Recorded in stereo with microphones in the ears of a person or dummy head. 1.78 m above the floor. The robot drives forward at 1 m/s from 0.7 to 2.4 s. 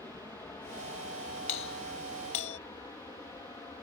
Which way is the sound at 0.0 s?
15° left (ahead or behind).